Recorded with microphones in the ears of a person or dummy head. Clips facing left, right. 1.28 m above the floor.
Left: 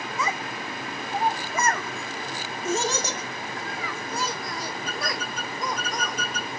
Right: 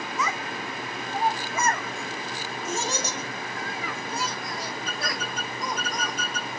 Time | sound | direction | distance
0.2 | a child speaking | 25° left (ahead or behind) | 1.1 m